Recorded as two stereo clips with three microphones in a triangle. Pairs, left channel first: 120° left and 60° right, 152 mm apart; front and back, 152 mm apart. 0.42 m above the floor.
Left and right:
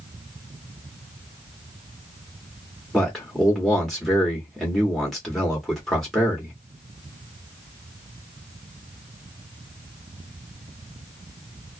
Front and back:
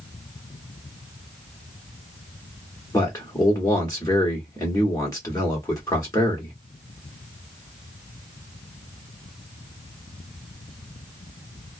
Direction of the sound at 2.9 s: 35° left.